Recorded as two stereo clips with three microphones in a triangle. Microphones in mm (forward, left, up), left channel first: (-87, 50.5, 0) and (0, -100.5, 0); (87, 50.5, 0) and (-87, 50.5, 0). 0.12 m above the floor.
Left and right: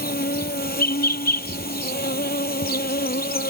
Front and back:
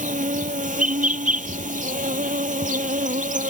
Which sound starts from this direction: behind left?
An insect, at 0.0 s.